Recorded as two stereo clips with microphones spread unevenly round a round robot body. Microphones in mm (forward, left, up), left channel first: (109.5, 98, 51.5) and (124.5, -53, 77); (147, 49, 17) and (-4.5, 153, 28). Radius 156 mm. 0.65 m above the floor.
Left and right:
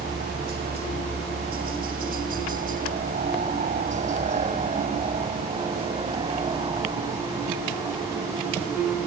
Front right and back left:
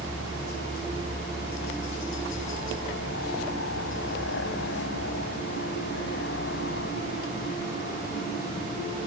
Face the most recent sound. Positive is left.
turn(degrees=-10)